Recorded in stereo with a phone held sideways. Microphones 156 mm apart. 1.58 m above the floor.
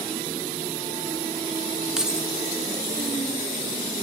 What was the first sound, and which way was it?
Keys jangling, 5° right (ahead or behind).